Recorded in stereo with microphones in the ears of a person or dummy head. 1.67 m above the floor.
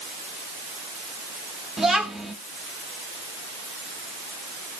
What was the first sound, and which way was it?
A child speaking, centre (ahead or behind).